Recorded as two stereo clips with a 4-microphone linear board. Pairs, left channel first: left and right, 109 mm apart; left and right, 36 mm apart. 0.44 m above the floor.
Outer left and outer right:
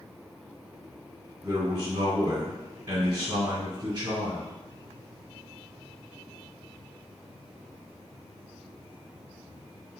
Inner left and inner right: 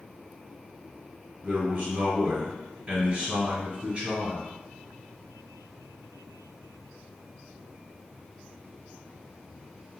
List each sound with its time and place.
1.4 s a man speaking: 25° right (ahead or behind), 1.4 m